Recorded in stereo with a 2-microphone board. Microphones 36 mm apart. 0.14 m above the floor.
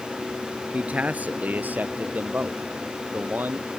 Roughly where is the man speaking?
Right.